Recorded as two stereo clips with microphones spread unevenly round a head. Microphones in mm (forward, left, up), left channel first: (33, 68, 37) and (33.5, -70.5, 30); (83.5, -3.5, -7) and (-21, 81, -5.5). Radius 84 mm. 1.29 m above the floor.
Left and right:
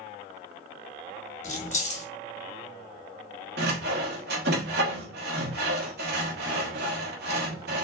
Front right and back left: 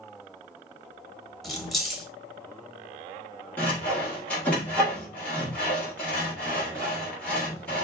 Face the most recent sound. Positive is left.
turn(degrees=-120)